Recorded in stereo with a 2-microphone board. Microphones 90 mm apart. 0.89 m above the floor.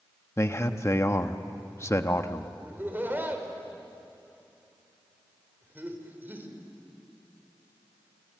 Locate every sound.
0.4 s a man speaking: 30° left (ahead or behind), 1.2 m
2.6 s laughter: 20° right (ahead or behind), 3.5 m